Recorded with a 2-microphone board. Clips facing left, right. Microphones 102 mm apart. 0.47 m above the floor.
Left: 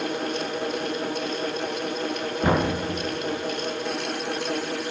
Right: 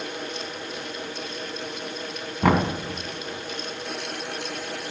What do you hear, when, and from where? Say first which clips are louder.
2.4 s knocking: right 2 dB; 75° right (ahead or behind), 2.5 m